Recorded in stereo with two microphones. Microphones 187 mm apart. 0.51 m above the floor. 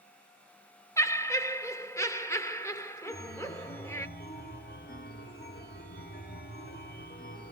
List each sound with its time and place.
1.0 s laughter: 15° left (ahead or behind), 1.6 m
3.1 s a chime: 60° left (ahead or behind), 1.4 m